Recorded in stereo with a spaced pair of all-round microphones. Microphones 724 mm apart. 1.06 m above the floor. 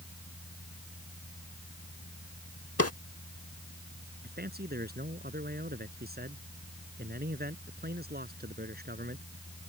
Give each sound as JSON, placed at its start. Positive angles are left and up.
{"t": 0.0, "sound": "a fan", "side_deg": 15}
{"t": 2.8, "sound": "a drawer", "side_deg": 20}
{"t": 4.2, "sound": "a man speaking", "side_deg": -15}